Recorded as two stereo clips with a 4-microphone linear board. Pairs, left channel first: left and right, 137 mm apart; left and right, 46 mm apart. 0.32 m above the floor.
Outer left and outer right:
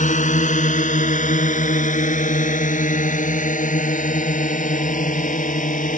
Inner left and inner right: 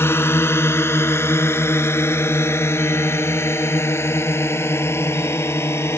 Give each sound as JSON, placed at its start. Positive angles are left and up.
{"t": 0.0, "sound": "a drone", "side_deg": 70}